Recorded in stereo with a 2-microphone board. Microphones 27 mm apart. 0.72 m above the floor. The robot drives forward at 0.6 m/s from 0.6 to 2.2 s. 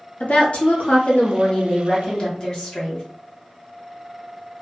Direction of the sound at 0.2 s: 60° left (ahead or behind).